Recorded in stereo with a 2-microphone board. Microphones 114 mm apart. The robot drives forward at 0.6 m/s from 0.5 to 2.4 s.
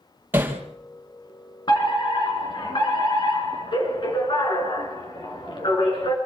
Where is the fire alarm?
40° left (ahead or behind), 4.5 m; by 6.2 s 45° left (ahead or behind), 4 m.